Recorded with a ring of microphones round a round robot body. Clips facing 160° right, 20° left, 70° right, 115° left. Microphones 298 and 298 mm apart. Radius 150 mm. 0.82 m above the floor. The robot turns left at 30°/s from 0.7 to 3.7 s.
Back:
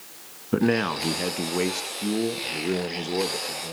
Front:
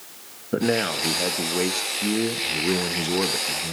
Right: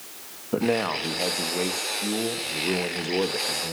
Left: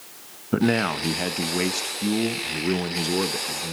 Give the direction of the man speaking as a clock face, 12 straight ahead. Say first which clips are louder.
Back 1 dB, left 2 dB; 7 o'clock.